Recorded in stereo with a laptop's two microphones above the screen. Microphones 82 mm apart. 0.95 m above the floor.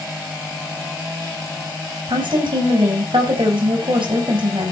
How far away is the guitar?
I don't hear a guitar.